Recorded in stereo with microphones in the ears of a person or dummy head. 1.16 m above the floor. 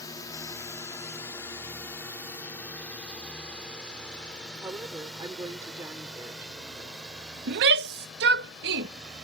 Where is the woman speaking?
20° right (ahead or behind).